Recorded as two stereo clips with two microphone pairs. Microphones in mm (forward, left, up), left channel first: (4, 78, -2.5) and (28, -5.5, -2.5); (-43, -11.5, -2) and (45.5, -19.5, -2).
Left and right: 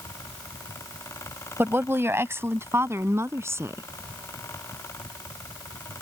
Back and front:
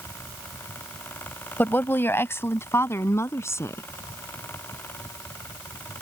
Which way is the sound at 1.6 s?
125° right.